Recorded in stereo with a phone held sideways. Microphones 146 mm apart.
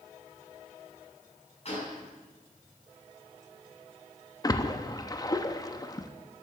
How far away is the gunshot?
About 6 m.